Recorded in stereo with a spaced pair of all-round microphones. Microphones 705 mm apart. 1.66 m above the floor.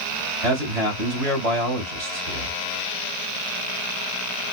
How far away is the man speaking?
About 1.9 m.